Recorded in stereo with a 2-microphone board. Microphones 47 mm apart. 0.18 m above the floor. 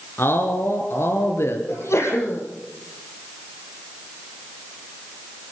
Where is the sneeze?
80° left, 7.5 m.